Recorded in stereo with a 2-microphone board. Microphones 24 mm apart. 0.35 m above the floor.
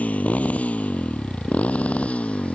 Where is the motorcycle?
80° left; by 2.5 s 65° left (ahead or behind).